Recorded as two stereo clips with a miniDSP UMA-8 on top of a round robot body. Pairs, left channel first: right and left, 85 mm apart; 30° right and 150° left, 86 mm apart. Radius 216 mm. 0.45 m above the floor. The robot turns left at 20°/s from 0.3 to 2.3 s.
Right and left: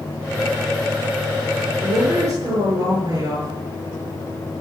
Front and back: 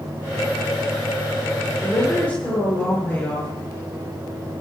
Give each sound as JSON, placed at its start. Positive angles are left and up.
{"t": 1.8, "sound": "a woman speaking", "azimuth_deg": 55, "distance_m": 9.0}